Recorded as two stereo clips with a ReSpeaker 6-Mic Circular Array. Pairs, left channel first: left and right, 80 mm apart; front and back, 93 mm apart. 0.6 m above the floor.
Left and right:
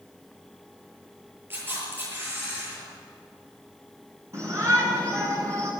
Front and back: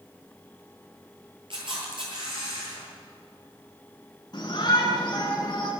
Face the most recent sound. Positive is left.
turn(degrees=-45)